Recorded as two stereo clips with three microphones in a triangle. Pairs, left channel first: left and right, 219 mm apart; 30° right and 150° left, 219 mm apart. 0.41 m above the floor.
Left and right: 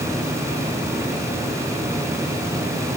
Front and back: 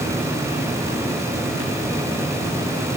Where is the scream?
No scream in this recording.